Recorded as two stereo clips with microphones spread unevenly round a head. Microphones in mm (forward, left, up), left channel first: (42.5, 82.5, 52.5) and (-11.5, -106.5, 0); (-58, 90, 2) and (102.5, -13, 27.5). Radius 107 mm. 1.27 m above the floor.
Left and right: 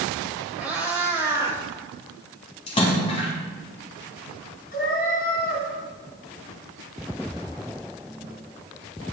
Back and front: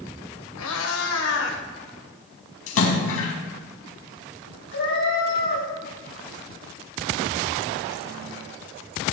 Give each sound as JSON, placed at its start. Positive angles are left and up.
{"t": 0.6, "sound": "a cat meowing", "azimuth_deg": 165, "distance_m": 3.0}
{"t": 2.7, "sound": "a splash", "azimuth_deg": 135, "distance_m": 5.0}
{"t": 4.7, "sound": "a cat meowing", "azimuth_deg": 125, "distance_m": 8.5}